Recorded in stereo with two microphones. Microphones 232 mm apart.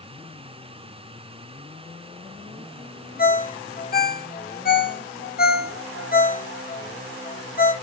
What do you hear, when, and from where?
3.2 s a ringtone: 40° left (ahead or behind), 0.5 m